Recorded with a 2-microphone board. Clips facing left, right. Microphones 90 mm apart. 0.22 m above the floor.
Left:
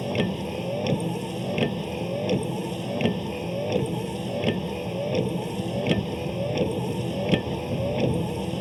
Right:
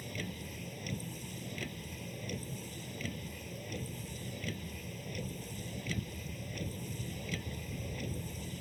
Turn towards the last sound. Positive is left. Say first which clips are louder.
# left 17 dB
turn(degrees=70)  # may be behind; listen again after turning